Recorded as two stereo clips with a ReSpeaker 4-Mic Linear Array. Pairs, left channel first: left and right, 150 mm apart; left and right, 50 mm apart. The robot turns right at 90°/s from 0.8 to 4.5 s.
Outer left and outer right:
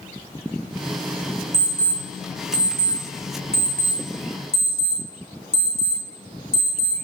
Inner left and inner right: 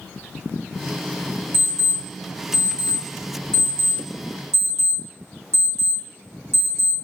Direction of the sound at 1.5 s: 40° right (ahead or behind).